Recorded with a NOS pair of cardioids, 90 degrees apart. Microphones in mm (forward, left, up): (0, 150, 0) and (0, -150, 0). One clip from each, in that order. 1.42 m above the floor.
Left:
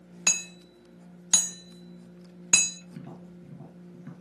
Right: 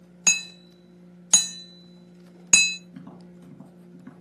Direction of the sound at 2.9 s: Straight ahead.